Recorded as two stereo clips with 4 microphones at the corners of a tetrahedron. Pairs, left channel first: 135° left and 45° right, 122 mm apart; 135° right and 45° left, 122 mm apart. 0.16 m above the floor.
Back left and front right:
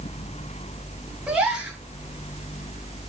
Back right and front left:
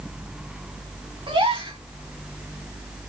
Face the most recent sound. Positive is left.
turn(degrees=30)